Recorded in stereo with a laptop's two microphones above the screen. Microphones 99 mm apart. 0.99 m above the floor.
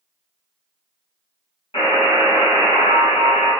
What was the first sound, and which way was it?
A buzzer, 65° left (ahead or behind).